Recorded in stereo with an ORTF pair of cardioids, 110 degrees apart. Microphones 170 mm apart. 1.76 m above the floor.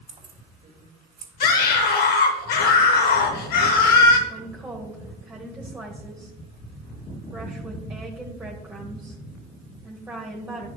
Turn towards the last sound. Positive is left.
turn(degrees=-10)